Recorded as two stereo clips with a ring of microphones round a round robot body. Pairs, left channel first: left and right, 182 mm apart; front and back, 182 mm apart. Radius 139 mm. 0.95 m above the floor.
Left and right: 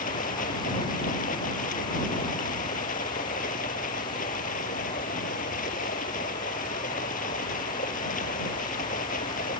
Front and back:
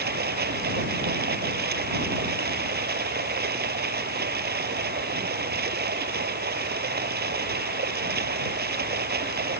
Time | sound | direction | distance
0.0 | running water | 150° left | ?